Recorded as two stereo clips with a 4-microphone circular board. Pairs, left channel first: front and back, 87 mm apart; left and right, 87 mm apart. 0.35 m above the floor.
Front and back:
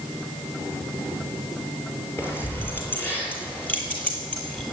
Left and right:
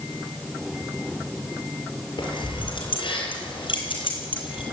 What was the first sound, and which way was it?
Keys jangling, 65° left.